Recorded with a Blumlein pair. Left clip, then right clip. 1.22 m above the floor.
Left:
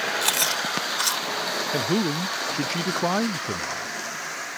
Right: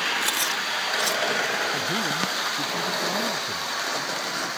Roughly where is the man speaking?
Ahead left.